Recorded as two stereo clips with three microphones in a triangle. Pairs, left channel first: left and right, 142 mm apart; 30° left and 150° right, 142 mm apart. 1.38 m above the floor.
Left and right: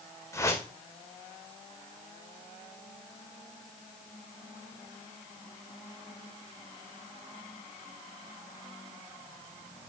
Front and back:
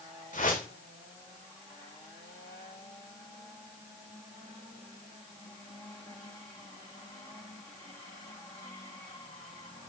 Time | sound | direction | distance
0.3 | a whoosh | 25° left | 2 m